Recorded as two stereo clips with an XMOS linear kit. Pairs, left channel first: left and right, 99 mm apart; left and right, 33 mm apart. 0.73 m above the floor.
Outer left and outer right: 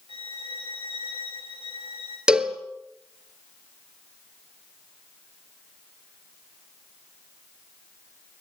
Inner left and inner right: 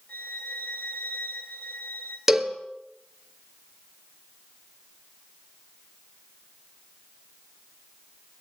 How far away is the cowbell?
About 1.9 m.